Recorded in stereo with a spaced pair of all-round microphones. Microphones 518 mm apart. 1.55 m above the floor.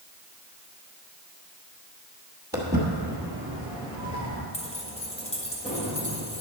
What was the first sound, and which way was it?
Footsteps, 15° right (ahead or behind).